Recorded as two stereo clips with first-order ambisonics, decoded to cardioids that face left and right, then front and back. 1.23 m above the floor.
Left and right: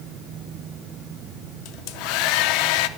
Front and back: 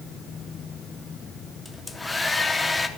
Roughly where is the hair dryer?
Left.